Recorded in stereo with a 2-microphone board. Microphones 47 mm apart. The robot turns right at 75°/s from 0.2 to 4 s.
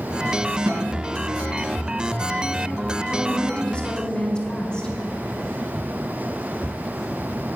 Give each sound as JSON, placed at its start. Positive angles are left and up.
{"t": 0.7, "sound": "a snare drum", "side_deg": -70, "distance_m": 2.5}
{"t": 3.1, "sound": "a woman speaking", "side_deg": 20, "distance_m": 1.4}